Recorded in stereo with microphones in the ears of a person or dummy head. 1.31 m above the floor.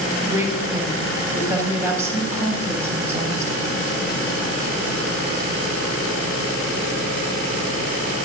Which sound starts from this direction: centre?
A woman speaking, at 0.2 s.